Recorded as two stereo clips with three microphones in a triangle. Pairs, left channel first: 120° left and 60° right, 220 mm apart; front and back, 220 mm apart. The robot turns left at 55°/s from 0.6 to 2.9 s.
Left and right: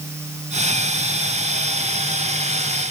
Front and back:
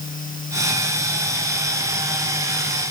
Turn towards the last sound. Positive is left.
No sound to turn to.